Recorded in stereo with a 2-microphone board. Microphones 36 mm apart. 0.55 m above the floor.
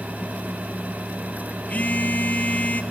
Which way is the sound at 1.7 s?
50° left (ahead or behind).